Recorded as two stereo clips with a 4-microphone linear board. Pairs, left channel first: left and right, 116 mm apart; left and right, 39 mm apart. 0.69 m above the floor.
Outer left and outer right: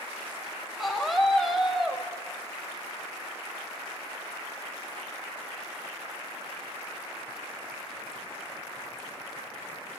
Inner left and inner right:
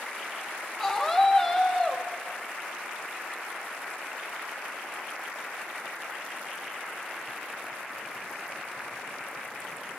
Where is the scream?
Centre (ahead or behind), 4.5 m.